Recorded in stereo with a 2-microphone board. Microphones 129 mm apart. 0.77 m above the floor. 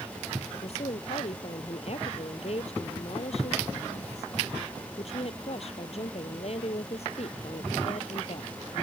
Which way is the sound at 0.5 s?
55° left (ahead or behind).